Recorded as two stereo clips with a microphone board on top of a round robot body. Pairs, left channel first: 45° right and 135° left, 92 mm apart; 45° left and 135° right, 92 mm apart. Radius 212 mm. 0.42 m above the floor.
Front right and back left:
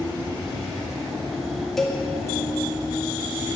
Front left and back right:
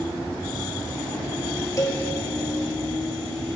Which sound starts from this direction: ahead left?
A cowbell, at 1.8 s.